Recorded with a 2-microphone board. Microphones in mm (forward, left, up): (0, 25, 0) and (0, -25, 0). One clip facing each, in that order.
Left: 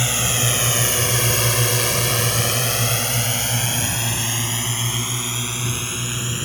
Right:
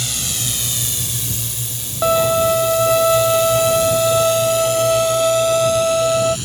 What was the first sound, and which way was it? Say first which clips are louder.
A drone: left 5 dB; 35° left (ahead or behind).